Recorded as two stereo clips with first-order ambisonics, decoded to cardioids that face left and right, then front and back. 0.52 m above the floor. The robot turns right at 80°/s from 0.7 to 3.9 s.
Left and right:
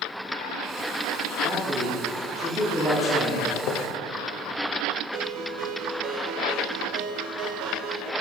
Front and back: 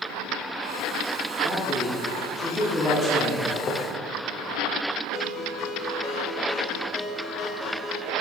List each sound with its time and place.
1.4 s a man speaking: 115° right, 1.4 m; by 3.4 s 45° left, 1.4 m
3.5 s a squeak: 55° left, 0.6 m; by 3.9 s 80° left, 0.6 m
5.1 s a ringtone: 70° right, 0.8 m